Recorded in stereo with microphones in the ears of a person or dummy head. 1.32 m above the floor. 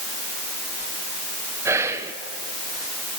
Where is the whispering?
15° right (ahead or behind), 0.6 m.